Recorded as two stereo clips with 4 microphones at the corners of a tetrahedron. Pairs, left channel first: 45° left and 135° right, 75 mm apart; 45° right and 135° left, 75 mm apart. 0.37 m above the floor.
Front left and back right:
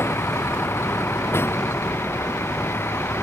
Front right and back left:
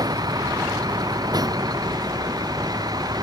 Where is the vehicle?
105° left.